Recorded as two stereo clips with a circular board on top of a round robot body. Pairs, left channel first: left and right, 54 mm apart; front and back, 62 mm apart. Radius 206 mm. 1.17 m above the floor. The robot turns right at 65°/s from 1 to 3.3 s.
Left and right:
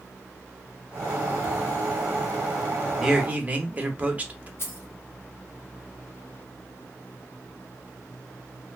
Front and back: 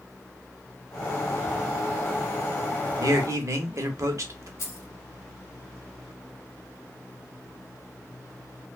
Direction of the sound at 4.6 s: 45° left.